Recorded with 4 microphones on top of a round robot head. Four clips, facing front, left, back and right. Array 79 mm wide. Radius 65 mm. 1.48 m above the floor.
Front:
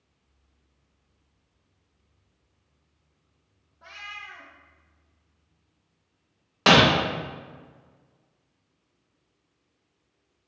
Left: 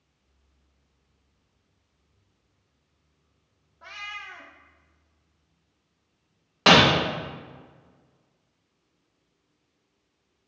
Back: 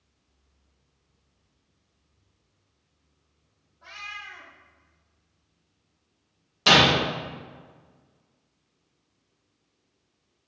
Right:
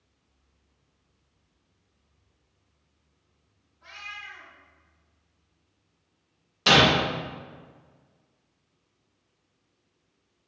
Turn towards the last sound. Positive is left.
turn(degrees=45)